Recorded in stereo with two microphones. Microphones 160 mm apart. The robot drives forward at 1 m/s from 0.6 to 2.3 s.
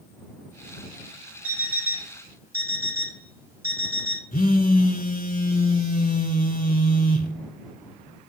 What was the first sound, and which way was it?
An alarm clock, 10° right (ahead or behind).